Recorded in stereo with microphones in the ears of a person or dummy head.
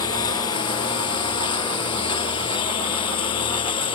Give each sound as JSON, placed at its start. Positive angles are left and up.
{"t": 0.0, "sound": "a lawn mower", "side_deg": 20}